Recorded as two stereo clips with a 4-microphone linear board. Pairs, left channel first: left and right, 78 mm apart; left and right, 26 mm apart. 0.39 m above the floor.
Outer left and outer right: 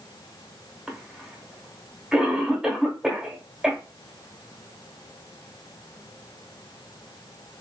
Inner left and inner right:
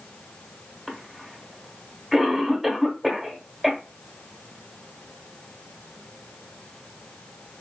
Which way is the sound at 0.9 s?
10° right (ahead or behind).